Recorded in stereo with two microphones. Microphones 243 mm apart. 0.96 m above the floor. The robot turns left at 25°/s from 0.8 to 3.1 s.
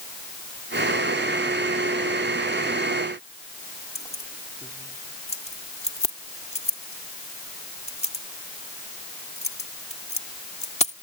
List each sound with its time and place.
4.0 s keys jangling: 25° left (ahead or behind)